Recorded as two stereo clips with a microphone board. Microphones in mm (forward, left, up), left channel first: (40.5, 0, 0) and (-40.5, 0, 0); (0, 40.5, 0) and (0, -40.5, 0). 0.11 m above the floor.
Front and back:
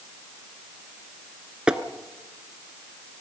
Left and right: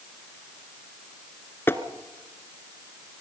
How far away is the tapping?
About 1.1 m.